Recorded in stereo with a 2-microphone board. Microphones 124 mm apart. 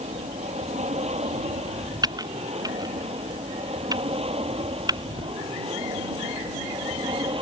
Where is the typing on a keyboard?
30° right (ahead or behind).